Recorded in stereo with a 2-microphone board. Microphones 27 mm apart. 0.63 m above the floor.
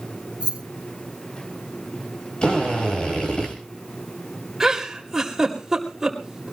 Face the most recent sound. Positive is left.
turn(degrees=-15)  # may be behind; listen again after turning